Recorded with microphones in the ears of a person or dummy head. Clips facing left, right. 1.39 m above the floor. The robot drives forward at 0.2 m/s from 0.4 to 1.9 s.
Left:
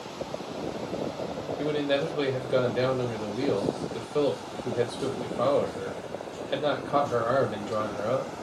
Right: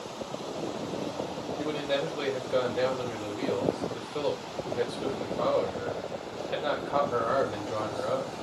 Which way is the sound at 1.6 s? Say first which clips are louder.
Left 4 dB; 15° left (ahead or behind).